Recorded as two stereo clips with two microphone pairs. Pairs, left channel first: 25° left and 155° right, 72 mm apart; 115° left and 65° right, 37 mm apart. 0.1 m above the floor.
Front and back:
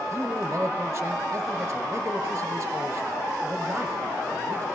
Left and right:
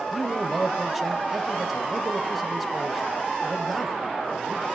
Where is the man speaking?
160° right, 1.8 m.